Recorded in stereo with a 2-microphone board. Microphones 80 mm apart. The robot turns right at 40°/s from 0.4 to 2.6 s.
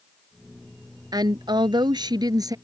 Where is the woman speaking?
115° right; by 2.5 s 55° right.